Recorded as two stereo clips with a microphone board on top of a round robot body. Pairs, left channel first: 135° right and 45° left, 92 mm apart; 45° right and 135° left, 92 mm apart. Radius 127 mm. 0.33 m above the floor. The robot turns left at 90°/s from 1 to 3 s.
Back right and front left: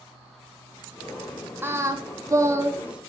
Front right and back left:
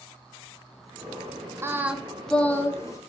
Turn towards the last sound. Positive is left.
turn(degrees=-30)